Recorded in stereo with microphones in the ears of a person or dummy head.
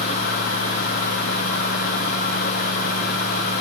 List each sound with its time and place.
Only background noise.